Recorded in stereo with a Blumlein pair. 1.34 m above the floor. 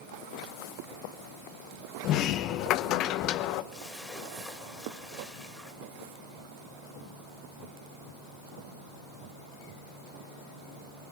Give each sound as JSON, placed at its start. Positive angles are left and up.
{"t": 2.0, "sound": "a sliding door", "azimuth_deg": 35, "distance_m": 0.9}
{"t": 3.7, "sound": "a splash", "azimuth_deg": 10, "distance_m": 2.5}